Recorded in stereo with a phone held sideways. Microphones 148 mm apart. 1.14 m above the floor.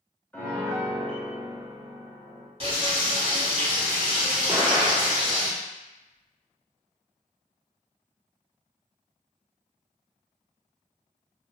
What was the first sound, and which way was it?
A piano, 10° left (ahead or behind).